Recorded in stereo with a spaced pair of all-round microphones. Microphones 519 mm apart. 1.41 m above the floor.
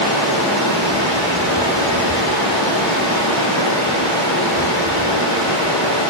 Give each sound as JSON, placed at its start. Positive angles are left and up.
{"t": 0.0, "sound": "running water", "side_deg": 10, "distance_m": 7.0}